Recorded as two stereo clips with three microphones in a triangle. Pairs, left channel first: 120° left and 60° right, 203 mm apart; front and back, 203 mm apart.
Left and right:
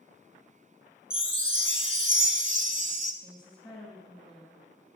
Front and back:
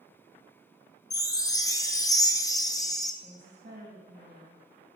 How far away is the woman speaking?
About 3 m.